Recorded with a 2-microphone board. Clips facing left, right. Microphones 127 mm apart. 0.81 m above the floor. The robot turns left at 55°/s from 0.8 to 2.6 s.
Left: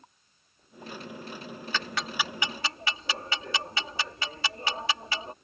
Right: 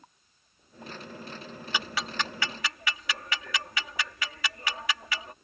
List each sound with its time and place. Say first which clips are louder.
1.7 s ticking: even; 15° right (ahead or behind); by 5.3 s 30° left (ahead or behind)